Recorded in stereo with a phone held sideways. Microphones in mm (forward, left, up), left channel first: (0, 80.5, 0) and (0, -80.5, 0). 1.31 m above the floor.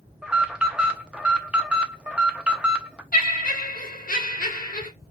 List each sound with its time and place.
0.2 s an alarm: 5° right (ahead or behind), 0.5 m
3.1 s laughter: 55° left (ahead or behind), 1.0 m